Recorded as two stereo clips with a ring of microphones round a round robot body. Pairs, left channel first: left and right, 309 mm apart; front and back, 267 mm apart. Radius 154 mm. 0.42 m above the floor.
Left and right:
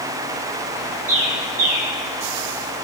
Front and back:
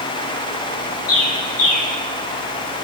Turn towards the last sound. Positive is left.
turn(degrees=-25)